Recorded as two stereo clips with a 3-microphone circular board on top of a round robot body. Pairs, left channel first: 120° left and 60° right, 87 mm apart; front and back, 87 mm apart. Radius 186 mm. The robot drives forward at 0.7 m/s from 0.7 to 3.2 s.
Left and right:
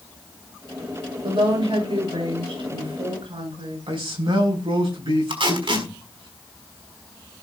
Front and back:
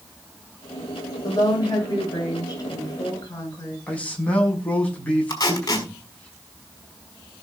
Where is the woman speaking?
40° right, 9.5 m; by 3.8 s 50° right, 8.5 m.